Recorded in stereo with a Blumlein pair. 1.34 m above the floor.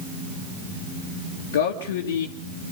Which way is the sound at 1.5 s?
60° left.